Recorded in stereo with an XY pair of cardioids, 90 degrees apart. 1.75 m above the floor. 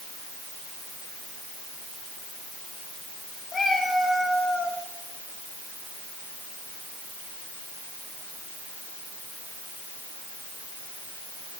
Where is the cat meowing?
45° left, 4 m; by 4.8 s 55° left, 3 m.